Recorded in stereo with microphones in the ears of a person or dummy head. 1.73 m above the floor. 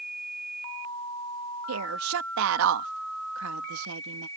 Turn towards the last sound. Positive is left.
turn(degrees=-80)